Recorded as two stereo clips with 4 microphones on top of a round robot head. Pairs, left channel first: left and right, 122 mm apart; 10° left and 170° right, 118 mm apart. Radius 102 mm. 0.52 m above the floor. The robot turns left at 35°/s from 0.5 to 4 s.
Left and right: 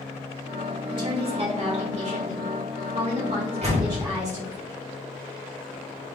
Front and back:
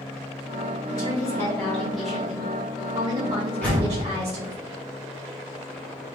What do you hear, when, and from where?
0.9 s a woman speaking: 40° right, 1.7 m; by 4.6 s 145° right, 1.7 m
3.6 s a door slam: 70° right, 1.9 m; by 4.0 s 80° right, 1.9 m